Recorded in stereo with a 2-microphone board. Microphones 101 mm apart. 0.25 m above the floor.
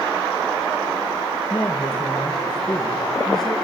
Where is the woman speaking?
10° left (ahead or behind), 4 m; by 3.6 s centre (ahead or behind), 4.5 m.